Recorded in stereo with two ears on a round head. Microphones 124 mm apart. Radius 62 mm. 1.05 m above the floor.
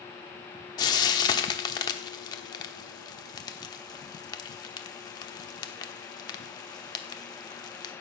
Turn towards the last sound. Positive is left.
turn(degrees=30)  # may be behind; listen again after turning